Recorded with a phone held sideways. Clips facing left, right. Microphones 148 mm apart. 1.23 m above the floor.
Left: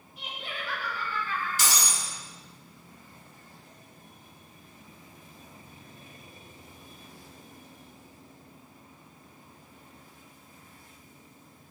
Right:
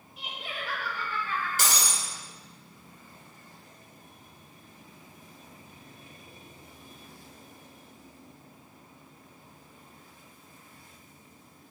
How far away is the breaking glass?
About 1.7 m.